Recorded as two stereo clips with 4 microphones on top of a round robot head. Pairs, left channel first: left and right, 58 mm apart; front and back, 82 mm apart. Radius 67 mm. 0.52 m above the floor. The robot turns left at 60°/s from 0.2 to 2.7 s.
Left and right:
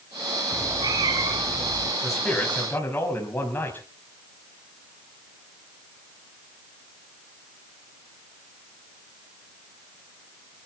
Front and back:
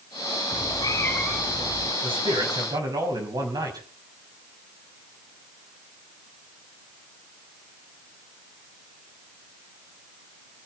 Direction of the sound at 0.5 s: 35° right.